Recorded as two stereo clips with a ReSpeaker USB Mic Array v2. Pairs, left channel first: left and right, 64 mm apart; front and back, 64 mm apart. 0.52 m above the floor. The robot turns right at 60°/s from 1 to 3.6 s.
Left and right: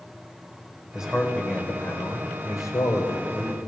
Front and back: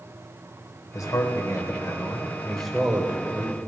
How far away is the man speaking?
About 2.5 m.